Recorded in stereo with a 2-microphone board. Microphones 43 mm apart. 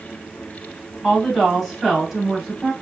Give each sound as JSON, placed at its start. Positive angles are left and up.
{"t": 1.0, "sound": "a woman speaking", "side_deg": 5, "distance_m": 1.4}